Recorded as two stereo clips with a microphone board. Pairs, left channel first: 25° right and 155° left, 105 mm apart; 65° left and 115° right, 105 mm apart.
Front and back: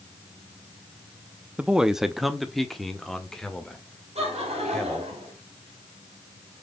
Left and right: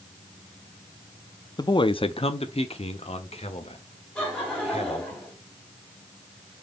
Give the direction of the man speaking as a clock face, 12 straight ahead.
9 o'clock.